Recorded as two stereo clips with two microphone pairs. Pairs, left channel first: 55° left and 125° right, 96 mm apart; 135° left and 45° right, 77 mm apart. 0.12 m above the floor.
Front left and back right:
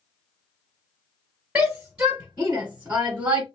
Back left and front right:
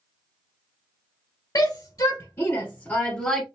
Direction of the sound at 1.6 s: 160° left.